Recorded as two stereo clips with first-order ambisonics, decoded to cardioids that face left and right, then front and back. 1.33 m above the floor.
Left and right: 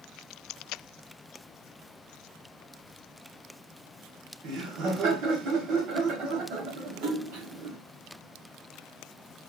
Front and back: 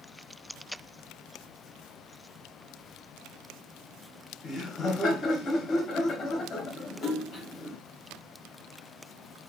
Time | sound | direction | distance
4.4 | laughter | 60° right | 1.1 m
7.0 | a splash | 65° right | 1.6 m